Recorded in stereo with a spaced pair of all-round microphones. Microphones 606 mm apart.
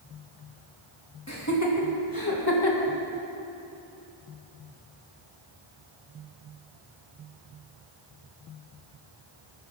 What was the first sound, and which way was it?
Laughter, 25° left (ahead or behind).